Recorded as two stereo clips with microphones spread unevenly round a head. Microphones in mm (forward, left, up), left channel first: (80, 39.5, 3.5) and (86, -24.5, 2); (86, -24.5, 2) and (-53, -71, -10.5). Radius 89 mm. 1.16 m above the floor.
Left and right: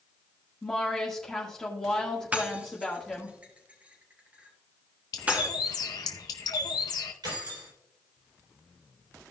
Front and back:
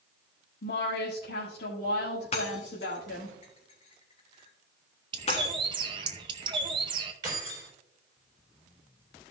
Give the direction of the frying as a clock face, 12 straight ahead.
No frying in this recording.